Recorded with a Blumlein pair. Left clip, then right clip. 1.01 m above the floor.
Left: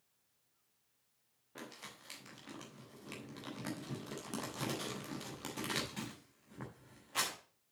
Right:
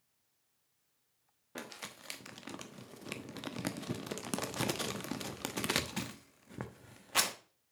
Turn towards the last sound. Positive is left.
turn(degrees=-65)